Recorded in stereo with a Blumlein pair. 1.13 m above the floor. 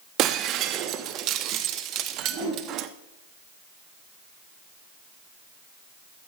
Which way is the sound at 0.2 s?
35° right.